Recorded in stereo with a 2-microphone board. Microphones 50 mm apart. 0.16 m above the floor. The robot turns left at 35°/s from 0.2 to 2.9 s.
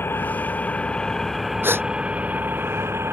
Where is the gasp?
45° right (ahead or behind); by 1.9 s 50° right (ahead or behind).